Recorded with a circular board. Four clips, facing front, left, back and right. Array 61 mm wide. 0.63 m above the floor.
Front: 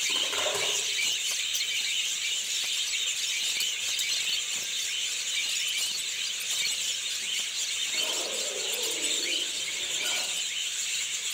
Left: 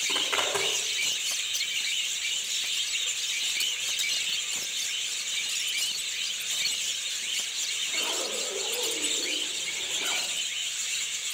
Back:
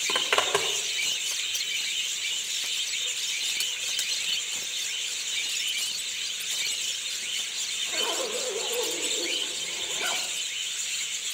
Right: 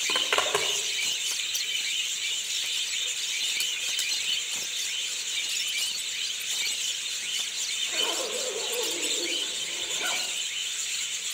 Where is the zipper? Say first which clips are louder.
Right 3 dB, back 8 dB; 150° right, 2.5 m.